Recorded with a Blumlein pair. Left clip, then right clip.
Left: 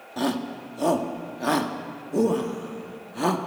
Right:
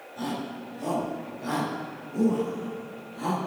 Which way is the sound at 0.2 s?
30° left.